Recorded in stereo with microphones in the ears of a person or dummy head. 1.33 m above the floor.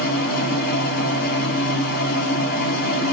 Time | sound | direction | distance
0.0 | a machine running | 55° left (ahead or behind) | 2.5 m